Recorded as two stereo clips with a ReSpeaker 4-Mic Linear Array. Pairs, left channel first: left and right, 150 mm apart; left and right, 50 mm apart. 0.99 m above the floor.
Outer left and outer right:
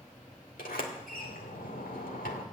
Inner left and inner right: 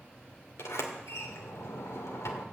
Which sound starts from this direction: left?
A sliding door, at 0.6 s.